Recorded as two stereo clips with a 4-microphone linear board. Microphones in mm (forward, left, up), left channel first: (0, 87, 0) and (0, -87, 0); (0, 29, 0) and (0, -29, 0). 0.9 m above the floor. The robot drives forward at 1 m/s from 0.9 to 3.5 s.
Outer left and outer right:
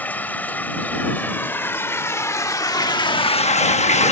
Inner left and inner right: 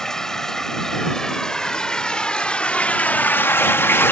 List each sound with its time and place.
0.0 s running water: 10° left (ahead or behind); by 4.1 s 40° left (ahead or behind)